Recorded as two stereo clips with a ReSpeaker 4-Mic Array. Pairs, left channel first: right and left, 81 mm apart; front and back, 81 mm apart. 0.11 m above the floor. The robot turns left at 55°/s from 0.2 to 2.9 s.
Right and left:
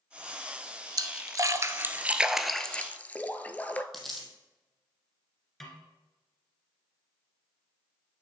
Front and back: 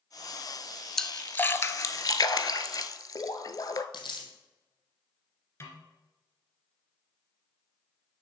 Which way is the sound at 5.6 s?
5° right.